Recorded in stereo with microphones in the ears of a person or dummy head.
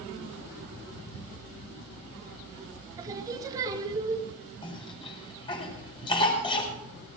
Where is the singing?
25° right (ahead or behind), 2 m.